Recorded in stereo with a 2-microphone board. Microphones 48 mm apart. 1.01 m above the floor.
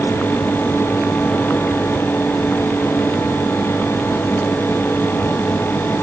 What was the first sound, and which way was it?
Only background noise.